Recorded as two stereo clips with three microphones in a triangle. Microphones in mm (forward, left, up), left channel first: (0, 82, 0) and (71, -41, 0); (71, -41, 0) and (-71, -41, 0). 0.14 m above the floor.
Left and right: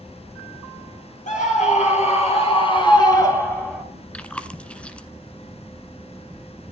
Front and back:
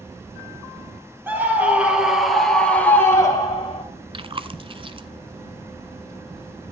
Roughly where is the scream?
Left.